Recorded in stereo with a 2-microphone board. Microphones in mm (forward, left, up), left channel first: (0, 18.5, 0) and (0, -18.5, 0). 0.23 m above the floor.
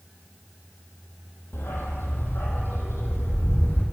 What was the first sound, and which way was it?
A dog barking, 80° left.